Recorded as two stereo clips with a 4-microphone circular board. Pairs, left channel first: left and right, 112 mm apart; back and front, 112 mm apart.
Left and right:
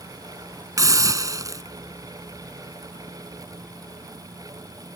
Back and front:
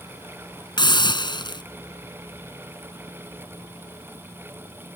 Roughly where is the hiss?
Behind right.